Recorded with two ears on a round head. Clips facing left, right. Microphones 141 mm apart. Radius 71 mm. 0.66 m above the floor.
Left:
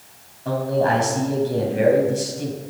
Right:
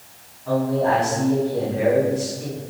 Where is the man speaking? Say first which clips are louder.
Even; 80° left, 4 m.